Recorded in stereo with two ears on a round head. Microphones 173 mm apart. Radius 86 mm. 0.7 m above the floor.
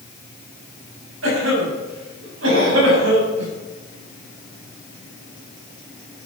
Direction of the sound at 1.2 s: 75° right (ahead or behind).